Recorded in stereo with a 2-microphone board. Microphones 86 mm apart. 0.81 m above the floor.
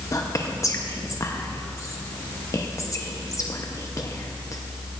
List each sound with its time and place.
0.1 s whispering: 35° left (ahead or behind), 0.6 m